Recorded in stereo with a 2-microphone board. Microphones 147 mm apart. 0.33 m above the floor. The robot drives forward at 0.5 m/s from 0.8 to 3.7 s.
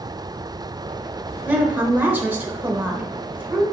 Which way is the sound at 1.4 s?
10° right (ahead or behind).